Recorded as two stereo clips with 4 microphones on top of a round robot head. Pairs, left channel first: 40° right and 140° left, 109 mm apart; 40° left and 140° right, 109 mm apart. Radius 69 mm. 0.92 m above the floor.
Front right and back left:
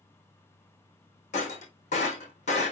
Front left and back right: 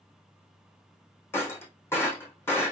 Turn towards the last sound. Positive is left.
turn(degrees=-30)